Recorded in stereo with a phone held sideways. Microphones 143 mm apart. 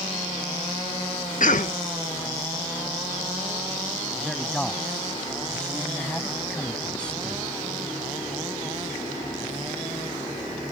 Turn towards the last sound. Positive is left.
turn(degrees=5)  # may be behind; listen again after turning